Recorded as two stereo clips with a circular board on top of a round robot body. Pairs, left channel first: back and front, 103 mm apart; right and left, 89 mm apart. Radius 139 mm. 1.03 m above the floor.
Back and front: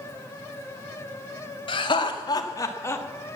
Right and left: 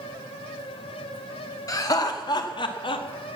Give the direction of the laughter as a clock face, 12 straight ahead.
5 o'clock.